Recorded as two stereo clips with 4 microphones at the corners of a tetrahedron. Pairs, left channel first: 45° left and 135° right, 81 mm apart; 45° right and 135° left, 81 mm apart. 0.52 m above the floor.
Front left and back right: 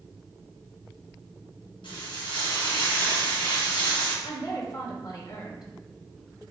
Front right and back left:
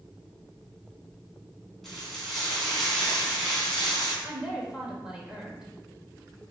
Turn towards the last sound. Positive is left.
turn(degrees=55)